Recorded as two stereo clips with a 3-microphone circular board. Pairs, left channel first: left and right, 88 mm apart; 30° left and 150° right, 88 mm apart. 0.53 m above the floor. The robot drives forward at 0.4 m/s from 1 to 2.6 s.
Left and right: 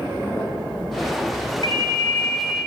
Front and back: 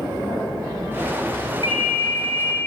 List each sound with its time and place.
1.6 s a ringtone: 55° left, 1.6 m; by 2.6 s 65° left, 1.4 m